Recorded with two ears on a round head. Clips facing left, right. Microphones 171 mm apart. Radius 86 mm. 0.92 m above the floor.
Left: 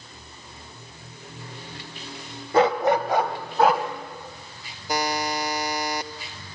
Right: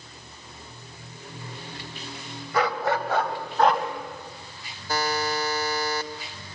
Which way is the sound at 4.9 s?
15° left (ahead or behind).